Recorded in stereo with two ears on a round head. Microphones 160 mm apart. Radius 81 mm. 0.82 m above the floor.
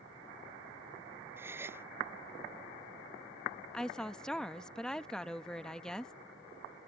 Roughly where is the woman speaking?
Centre.